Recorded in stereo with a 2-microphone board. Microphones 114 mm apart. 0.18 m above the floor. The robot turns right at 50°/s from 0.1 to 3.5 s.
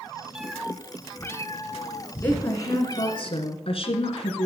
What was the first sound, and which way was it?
A cat meowing, 10° right.